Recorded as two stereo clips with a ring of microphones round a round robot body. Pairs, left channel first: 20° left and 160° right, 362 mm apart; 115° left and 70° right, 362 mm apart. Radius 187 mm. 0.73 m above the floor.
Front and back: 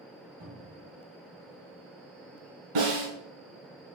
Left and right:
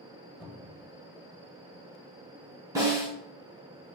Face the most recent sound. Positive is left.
turn(degrees=-150)